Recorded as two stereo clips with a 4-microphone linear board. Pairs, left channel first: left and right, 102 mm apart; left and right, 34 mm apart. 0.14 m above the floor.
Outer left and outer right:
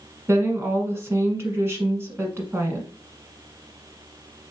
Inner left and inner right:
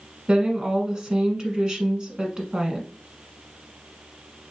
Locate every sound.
0.3 s a woman speaking: 25° right (ahead or behind), 1.2 m